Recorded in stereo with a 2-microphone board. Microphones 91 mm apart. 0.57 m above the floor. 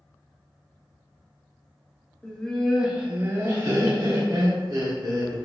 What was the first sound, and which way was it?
Laughter, 10° left (ahead or behind).